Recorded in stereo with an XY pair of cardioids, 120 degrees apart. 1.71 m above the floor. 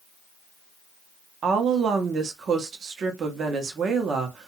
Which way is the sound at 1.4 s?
45° right.